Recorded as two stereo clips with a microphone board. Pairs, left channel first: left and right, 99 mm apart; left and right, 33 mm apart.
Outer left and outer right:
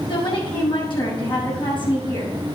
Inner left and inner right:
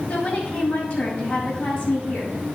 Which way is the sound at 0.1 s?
50° left (ahead or behind).